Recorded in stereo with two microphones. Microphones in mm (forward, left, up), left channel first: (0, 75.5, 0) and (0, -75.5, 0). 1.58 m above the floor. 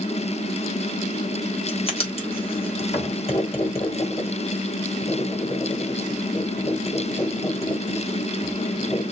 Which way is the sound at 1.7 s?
40° left (ahead or behind).